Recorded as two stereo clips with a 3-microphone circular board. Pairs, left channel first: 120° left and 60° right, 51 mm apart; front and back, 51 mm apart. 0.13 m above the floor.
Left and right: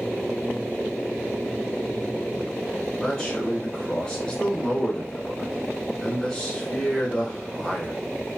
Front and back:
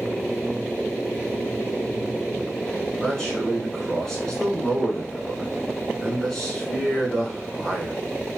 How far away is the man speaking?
About 1.2 m.